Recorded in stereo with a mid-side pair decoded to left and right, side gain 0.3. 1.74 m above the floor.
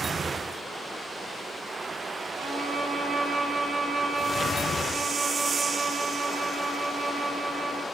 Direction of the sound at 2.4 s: 65° right.